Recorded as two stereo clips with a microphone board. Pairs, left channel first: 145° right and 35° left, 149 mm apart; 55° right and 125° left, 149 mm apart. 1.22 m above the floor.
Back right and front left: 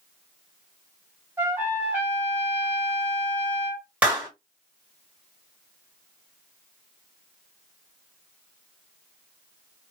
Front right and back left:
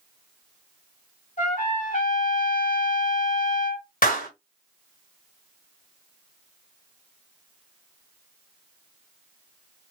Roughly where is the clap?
Ahead right.